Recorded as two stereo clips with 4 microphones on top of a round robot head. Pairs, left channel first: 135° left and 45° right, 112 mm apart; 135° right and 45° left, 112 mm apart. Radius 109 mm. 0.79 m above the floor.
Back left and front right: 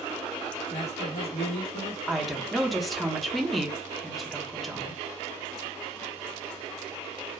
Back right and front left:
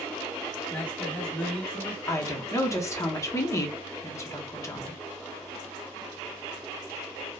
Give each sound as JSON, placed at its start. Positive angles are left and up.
{"t": 0.7, "sound": "a man speaking", "azimuth_deg": 150, "distance_m": 1.1}
{"t": 2.1, "sound": "a woman speaking", "azimuth_deg": -135, "distance_m": 0.8}